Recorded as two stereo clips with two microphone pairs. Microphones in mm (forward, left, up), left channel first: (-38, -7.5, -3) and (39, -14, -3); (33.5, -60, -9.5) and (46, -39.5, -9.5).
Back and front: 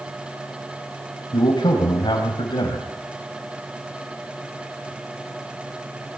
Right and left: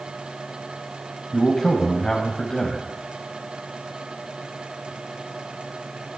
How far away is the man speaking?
About 4 m.